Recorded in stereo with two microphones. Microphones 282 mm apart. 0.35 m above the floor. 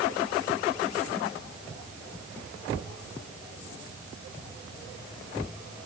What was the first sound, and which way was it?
Only background noise.